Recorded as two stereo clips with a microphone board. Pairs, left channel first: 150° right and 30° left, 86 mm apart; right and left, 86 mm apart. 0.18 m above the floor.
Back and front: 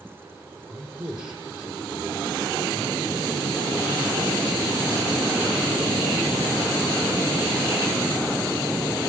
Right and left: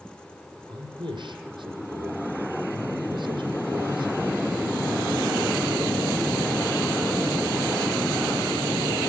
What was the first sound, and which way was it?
A man speaking, 105° left.